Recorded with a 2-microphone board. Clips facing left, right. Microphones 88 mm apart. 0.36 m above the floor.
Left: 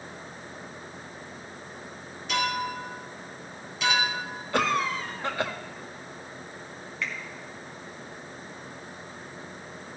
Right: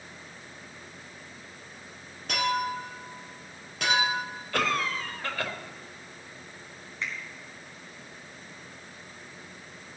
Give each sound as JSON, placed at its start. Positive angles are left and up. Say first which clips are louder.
{"t": 2.3, "sound": "a clink", "louder": "right 1 dB", "side_deg": -55, "distance_m": 5.5}
{"t": 4.5, "sound": "a cough", "louder": "left 3 dB", "side_deg": 20, "distance_m": 1.4}
{"t": 7.0, "sound": "a finger snap", "louder": "left 2 dB", "side_deg": -25, "distance_m": 3.0}